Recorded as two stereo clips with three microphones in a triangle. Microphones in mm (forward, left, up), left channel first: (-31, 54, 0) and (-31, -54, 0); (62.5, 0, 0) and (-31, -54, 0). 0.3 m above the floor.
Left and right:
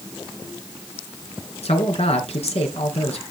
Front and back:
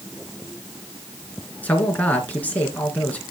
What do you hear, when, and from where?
1.6 s a man speaking: 105° left, 3.5 m